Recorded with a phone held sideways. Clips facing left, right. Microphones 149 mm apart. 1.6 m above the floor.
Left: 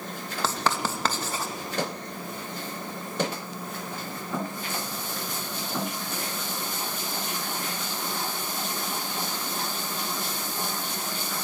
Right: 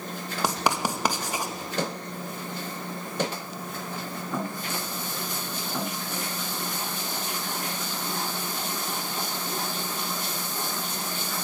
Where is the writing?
15° right (ahead or behind), 2.5 m.